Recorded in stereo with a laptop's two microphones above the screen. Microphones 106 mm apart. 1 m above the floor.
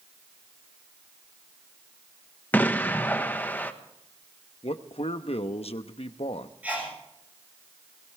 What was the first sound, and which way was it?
An explosion, 15° left (ahead or behind).